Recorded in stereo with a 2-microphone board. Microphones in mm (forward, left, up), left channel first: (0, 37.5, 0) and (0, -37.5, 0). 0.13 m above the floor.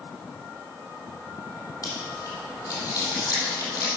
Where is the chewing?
50° left (ahead or behind), 4 m.